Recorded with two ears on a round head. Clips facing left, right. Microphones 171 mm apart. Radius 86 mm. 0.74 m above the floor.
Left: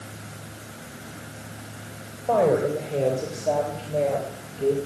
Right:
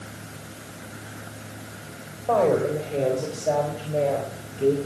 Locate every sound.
2.3 s a woman speaking: 5° left (ahead or behind), 3.5 m; by 4.8 s 15° right (ahead or behind), 4 m